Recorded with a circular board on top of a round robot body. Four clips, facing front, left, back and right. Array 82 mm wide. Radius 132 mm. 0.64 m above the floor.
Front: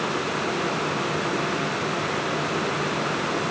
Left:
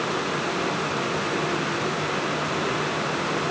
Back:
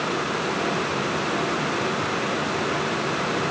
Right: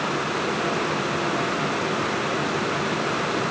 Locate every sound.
Only background noise.